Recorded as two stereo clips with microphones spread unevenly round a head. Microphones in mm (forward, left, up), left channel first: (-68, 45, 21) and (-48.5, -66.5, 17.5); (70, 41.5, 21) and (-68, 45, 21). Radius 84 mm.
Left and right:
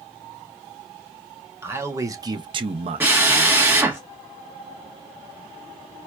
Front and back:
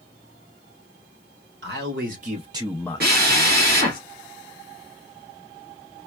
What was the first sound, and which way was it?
A man speaking, 150° right.